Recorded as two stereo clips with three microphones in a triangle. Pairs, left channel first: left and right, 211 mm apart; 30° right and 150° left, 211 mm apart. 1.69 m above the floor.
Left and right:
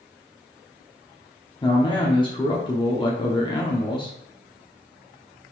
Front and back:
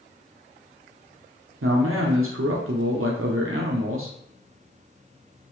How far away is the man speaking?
About 0.7 m.